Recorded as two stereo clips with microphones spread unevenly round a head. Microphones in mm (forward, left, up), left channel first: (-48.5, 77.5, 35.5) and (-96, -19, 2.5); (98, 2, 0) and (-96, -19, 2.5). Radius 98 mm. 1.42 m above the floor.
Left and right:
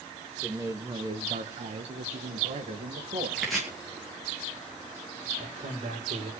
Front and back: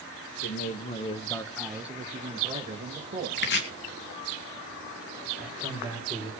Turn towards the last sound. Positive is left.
turn(degrees=-90)